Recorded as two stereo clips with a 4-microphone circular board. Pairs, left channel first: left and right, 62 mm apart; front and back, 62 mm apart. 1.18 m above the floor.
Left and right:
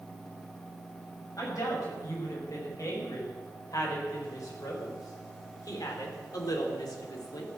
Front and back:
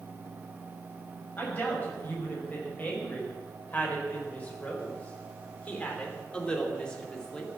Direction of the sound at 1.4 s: 60° left.